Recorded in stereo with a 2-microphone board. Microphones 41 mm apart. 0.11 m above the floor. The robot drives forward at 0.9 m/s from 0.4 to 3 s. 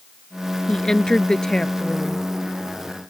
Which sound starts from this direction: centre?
A woman speaking, at 0.7 s.